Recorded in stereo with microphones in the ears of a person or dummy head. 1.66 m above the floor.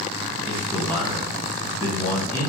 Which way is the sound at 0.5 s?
35° right (ahead or behind).